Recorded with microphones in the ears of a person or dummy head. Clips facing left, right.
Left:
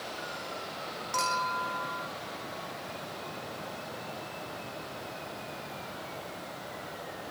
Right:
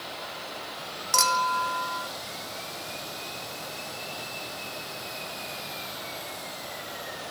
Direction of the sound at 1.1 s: 65° right (ahead or behind).